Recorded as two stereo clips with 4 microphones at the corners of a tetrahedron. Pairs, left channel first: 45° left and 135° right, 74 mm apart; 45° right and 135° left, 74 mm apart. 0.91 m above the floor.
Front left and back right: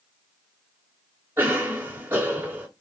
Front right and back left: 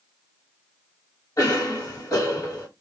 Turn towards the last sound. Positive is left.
turn(degrees=-90)